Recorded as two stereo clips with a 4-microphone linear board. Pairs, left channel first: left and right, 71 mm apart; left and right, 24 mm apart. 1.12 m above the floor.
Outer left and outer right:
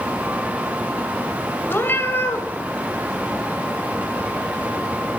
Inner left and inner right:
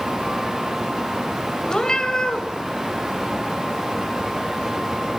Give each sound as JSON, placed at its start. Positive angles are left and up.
{"t": 1.7, "sound": "a cat meowing", "side_deg": 35, "distance_m": 2.5}